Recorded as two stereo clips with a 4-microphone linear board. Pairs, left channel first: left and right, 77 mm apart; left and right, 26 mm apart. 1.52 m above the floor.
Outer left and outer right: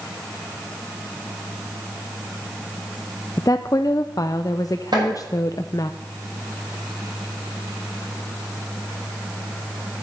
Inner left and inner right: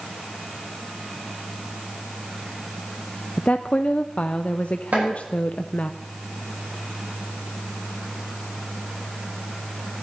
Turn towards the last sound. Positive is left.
turn(degrees=-65)  # may be behind; listen again after turning